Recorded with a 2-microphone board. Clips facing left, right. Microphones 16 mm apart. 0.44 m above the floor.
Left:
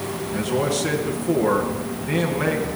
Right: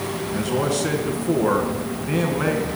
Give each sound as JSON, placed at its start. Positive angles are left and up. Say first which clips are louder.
{"t": 0.3, "sound": "a man speaking", "louder": "even", "side_deg": 0, "distance_m": 4.0}